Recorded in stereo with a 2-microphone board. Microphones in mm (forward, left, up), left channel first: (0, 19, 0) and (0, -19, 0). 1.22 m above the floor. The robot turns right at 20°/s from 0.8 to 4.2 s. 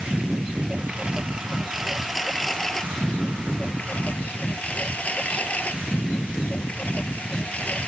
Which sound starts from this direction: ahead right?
A lawn mower, at 0.0 s.